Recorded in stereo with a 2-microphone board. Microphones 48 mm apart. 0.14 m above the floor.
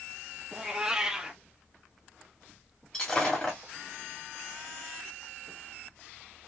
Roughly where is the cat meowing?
Centre.